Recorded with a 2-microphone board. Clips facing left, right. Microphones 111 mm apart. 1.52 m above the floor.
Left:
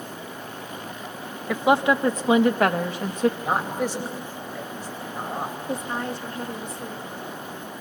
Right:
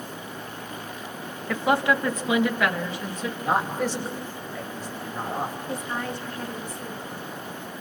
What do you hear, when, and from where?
1.5 s a woman speaking: 15° left (ahead or behind), 1.5 m; by 3.3 s 55° left (ahead or behind), 2 m
3.4 s a man speaking: 10° left (ahead or behind), 9 m
5.7 s a woman speaking: 25° left (ahead or behind), 2.5 m